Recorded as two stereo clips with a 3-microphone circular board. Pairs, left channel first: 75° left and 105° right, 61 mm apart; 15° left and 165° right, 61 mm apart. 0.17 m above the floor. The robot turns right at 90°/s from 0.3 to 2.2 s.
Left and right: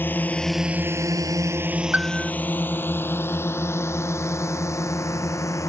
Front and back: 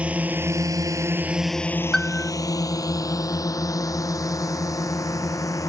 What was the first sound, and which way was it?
A drone, 130° left.